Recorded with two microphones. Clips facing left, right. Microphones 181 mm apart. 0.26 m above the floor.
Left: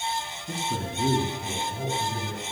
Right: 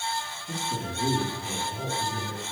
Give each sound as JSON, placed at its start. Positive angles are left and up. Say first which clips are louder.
{"t": 0.5, "sound": "a man speaking", "louder": "left 2 dB", "side_deg": 45, "distance_m": 3.5}